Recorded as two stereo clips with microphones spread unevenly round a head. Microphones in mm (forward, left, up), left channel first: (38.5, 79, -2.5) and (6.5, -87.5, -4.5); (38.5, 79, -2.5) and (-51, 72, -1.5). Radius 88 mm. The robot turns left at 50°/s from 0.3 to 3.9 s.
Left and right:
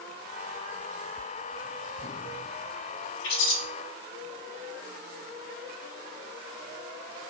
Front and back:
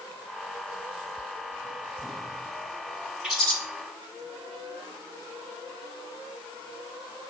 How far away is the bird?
About 1.3 m.